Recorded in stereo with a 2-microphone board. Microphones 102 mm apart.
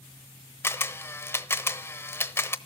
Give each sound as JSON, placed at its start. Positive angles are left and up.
{"t": 0.6, "sound": "a camera shutter", "side_deg": 25, "distance_m": 0.9}